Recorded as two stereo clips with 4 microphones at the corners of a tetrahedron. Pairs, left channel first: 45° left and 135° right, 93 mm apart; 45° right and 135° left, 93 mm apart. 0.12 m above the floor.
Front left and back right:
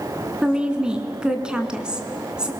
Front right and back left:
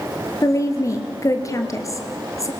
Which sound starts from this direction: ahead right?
A woman speaking, at 0.4 s.